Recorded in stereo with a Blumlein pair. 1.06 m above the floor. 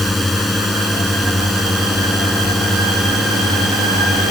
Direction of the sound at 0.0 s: 5° left.